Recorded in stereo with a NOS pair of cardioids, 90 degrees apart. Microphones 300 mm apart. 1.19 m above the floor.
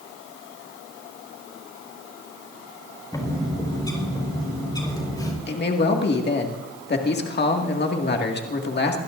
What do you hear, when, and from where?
3.1 s a bird: 15° left, 4.5 m
5.5 s a man speaking: 35° left, 2 m